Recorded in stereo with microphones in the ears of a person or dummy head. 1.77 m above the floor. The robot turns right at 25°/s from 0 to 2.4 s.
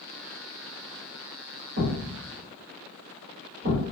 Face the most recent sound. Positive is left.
turn(degrees=-40)  # may be behind; listen again after turning